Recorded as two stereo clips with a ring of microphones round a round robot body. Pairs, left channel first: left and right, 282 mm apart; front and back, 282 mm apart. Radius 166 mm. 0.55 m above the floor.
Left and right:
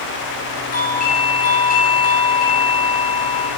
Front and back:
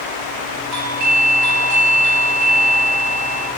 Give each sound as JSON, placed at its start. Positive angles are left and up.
{"t": 0.7, "sound": "a doorbell", "azimuth_deg": 155, "distance_m": 5.0}